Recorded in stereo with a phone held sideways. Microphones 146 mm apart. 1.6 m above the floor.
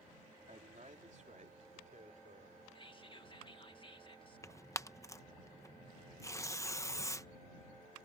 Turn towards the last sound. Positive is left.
turn(degrees=20)  # may be behind; listen again after turning